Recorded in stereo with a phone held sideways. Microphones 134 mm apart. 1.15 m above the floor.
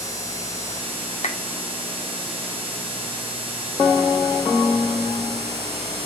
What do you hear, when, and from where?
1.2 s a clap: 55° left (ahead or behind), 2.5 m